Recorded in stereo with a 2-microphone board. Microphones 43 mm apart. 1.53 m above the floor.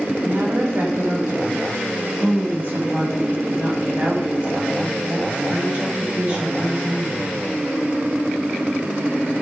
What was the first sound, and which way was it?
A woman speaking, 65° right (ahead or behind).